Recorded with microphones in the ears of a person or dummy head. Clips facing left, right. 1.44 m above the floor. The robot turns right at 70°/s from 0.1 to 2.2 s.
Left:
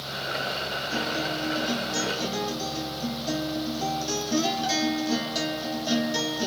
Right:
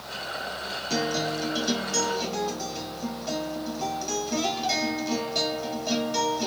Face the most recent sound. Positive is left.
turn(degrees=15)